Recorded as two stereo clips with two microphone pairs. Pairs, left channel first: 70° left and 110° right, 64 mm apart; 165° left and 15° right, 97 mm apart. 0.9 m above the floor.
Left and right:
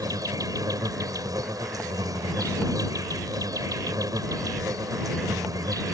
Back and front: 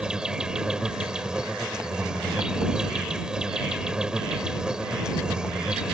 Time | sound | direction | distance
0.0 | an insect | 95° right | ?